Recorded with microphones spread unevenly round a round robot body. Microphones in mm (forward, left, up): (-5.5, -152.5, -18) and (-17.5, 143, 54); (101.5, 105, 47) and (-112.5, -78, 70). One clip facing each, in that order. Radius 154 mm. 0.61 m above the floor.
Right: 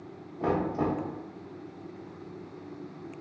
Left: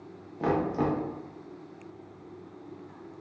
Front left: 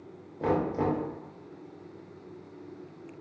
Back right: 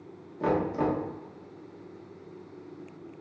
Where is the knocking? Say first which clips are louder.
Left 1 dB, back right 1 dB; 145° left, 1.2 m.